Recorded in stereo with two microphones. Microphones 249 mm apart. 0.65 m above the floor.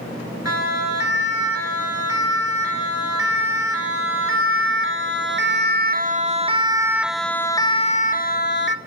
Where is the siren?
70° right (ahead or behind), 5.5 m; by 8.8 s 45° left (ahead or behind), 1.7 m.